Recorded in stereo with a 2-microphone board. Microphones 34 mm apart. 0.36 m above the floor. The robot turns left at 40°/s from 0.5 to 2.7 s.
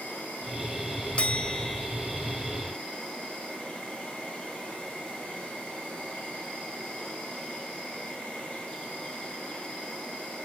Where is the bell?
40° left (ahead or behind), 0.8 m; by 1.9 s 15° left (ahead or behind), 0.8 m.